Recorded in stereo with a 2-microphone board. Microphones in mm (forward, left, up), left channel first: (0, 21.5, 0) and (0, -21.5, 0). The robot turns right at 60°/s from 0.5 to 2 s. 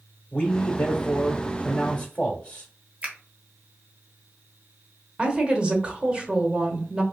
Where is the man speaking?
35° left, 0.9 m; by 2.7 s 125° left, 0.9 m.